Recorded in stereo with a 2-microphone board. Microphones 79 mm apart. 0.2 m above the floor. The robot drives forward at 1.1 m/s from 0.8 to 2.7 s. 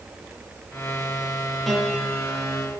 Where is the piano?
Centre (ahead or behind), 4.5 m.